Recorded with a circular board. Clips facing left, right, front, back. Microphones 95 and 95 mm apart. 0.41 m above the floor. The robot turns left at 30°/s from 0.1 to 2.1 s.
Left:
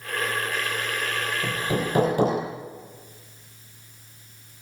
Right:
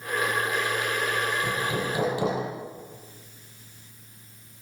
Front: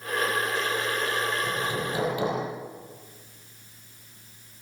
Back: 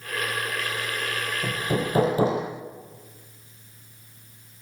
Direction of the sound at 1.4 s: 150° left.